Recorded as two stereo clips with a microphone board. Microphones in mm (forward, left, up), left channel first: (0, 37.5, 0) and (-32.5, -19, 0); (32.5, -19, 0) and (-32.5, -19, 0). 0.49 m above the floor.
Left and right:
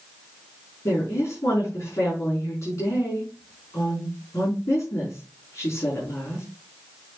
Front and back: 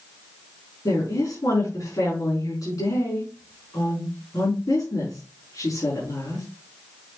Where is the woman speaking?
20° left, 5 m.